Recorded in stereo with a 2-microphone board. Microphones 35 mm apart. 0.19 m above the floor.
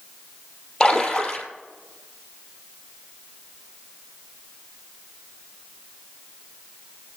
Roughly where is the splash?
Centre.